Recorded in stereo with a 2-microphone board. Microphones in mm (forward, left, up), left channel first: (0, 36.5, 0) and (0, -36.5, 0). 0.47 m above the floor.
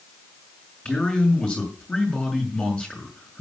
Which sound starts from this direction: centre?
A man speaking, at 0.8 s.